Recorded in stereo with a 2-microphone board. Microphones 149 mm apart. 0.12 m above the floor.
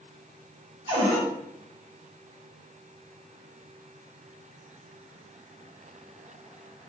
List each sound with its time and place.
0.9 s a cupboard door: 35° right (ahead or behind), 1.7 m